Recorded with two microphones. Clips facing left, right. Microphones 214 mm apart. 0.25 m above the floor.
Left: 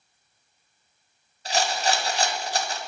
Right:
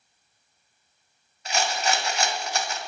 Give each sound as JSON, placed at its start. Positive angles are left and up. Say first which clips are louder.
{"t": 1.4, "sound": "a rattle", "louder": "left 1 dB", "side_deg": 35, "distance_m": 0.8}